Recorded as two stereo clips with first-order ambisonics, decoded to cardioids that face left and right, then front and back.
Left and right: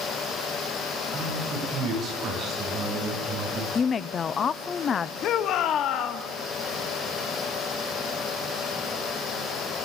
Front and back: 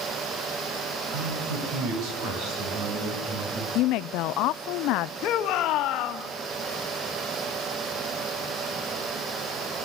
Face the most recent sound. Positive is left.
turn(degrees=40)